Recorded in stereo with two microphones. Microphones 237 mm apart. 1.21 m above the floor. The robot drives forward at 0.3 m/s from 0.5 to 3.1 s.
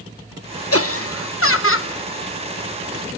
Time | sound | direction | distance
0.7 | laughter | 70° left (ahead or behind) | 1.1 m